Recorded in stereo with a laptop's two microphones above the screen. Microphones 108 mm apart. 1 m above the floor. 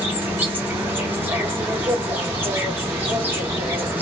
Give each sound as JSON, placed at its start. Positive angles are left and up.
{"t": 0.0, "sound": "an insect", "side_deg": -15, "distance_m": 0.9}